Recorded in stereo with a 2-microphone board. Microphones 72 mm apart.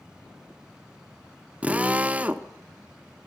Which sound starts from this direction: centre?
A drill, at 1.6 s.